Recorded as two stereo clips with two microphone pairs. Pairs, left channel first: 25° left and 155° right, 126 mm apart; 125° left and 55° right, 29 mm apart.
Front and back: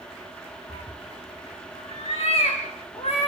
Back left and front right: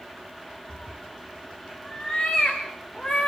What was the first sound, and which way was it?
A cat meowing, 60° left.